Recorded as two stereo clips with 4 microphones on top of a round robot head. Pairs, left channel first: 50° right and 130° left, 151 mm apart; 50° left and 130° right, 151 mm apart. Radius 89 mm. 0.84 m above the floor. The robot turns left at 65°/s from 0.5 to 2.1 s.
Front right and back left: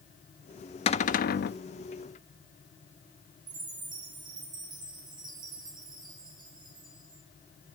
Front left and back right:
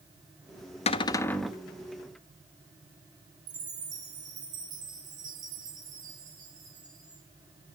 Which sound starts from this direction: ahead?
A cupboard door, at 0.9 s.